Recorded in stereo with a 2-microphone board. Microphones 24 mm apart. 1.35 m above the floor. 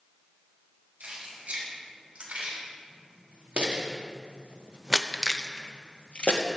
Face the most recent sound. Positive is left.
turn(degrees=65)  # may be behind; listen again after turning